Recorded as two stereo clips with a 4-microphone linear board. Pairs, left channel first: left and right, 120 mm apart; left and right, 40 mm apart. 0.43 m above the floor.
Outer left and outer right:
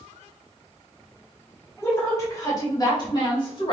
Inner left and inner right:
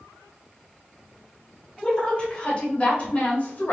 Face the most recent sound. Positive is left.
turn(degrees=45)  # may be behind; listen again after turning